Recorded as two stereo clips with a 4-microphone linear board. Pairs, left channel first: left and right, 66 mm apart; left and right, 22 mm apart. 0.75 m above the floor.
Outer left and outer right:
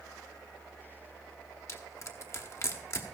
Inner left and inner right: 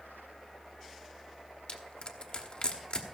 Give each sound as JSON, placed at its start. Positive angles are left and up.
{"t": 1.7, "sound": "crushing", "side_deg": 45, "distance_m": 1.3}